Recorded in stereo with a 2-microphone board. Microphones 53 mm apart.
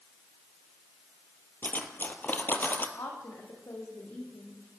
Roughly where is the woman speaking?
Left.